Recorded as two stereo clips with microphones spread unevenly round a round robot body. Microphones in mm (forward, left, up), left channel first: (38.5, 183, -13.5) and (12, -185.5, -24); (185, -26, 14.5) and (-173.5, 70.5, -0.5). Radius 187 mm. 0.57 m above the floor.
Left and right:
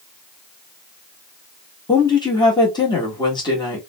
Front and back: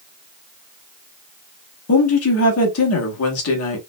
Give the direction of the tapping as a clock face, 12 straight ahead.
I don't hear tapping.